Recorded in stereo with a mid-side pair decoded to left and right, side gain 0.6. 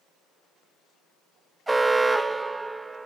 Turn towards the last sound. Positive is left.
turn(degrees=-15)